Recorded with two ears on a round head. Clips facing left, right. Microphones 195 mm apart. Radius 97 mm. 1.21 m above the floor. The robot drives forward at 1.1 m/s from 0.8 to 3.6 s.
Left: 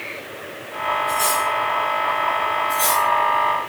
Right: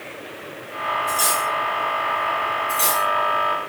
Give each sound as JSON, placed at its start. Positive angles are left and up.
{"t": 1.1, "sound": "cutlery clinking", "side_deg": -60, "distance_m": 4.0}
{"t": 2.7, "sound": "cutlery clinking", "side_deg": -35, "distance_m": 4.5}